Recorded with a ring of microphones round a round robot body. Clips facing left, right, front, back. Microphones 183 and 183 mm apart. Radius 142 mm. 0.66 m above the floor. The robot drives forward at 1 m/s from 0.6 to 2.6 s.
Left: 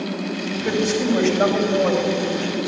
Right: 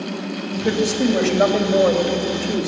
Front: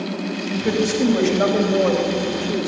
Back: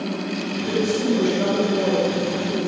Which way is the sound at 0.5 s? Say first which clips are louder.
Right 2 dB, front 2 dB; 35° right.